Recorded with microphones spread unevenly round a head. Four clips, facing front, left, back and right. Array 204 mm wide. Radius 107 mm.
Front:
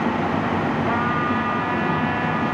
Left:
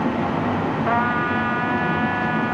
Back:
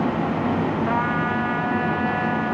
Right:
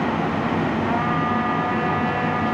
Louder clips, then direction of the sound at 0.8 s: Left 1 dB, front 1 dB; 90° left.